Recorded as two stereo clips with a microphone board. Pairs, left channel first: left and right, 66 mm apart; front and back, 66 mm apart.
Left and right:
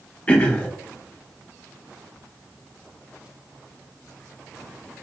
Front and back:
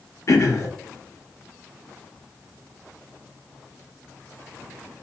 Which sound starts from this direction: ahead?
Throat clearing, at 0.3 s.